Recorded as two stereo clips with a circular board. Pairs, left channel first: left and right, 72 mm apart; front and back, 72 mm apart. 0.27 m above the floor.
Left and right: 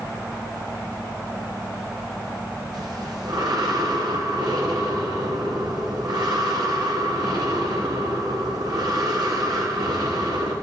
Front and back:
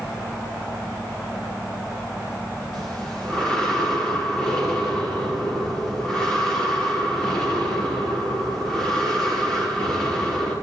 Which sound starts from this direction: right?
Breathing, at 2.7 s.